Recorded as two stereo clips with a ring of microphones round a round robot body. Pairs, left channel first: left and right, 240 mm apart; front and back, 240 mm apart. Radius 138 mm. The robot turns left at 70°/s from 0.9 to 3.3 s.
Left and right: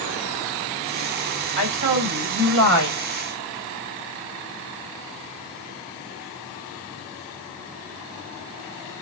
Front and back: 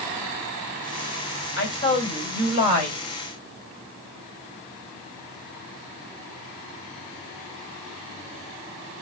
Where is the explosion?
No explosion in this recording.